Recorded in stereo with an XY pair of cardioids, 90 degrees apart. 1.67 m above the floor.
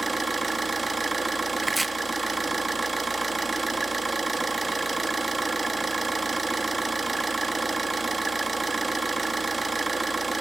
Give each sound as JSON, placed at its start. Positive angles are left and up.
{"t": 0.0, "sound": "an engine running", "azimuth_deg": -25, "distance_m": 2.5}
{"t": 1.6, "sound": "chopping", "azimuth_deg": -20, "distance_m": 1.5}